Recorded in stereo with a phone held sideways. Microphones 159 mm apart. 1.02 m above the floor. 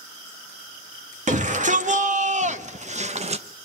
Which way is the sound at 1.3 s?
50° right (ahead or behind).